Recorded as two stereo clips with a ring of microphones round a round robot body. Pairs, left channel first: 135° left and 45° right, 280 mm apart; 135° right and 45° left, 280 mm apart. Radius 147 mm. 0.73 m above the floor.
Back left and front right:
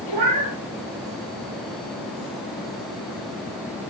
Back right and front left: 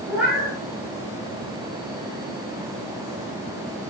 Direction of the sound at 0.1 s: 40° right.